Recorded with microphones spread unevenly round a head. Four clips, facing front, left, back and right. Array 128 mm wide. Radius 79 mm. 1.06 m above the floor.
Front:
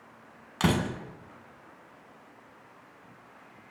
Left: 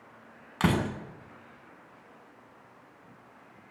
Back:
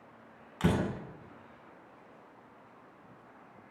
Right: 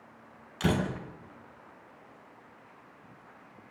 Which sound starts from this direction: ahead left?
A door slam, at 0.6 s.